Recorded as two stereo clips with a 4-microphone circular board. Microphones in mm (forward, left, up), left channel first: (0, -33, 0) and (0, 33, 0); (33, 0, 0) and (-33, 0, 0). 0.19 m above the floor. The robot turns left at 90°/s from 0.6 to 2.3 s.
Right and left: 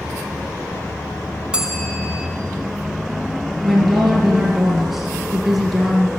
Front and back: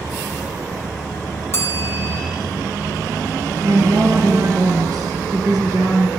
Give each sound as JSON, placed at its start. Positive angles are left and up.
{"t": 1.5, "sound": "a bell", "azimuth_deg": 20, "distance_m": 1.8}
{"t": 3.6, "sound": "a woman speaking", "azimuth_deg": 175, "distance_m": 3.0}